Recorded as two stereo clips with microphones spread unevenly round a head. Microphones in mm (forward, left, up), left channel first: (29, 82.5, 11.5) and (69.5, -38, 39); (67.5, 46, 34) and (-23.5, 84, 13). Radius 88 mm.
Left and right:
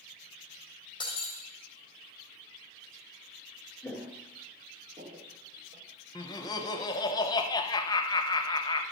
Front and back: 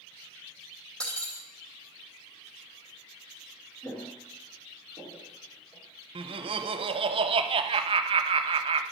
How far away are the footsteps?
About 1.1 m.